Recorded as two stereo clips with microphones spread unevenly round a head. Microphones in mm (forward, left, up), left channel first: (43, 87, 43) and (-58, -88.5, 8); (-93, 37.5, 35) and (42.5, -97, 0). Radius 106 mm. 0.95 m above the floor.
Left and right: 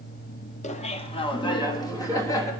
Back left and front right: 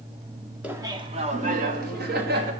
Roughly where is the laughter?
Ahead.